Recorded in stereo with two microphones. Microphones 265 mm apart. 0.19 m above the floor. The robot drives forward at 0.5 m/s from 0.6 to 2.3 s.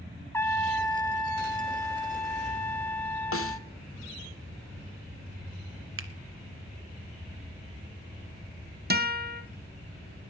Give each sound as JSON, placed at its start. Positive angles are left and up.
{"t": 0.3, "sound": "a trumpet", "side_deg": 10, "distance_m": 1.1}
{"t": 3.3, "sound": "a snare drum", "side_deg": 55, "distance_m": 0.7}
{"t": 6.0, "sound": "a finger snap", "side_deg": -50, "distance_m": 1.3}
{"t": 8.9, "sound": "a guitar", "side_deg": -35, "distance_m": 1.6}